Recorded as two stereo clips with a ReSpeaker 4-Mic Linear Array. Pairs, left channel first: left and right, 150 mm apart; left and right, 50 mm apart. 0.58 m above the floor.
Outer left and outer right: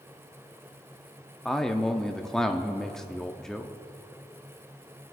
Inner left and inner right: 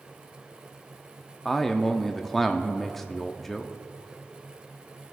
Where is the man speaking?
5° left (ahead or behind), 0.6 m.